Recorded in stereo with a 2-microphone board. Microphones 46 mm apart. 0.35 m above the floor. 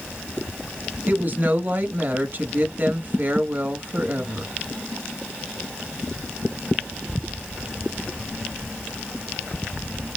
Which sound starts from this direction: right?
A woman speaking, at 1.1 s.